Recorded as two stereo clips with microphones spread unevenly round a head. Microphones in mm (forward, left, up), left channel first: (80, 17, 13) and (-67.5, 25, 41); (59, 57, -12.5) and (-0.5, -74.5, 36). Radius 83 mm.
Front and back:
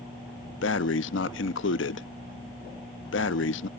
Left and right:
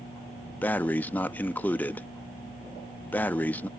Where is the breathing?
20° right.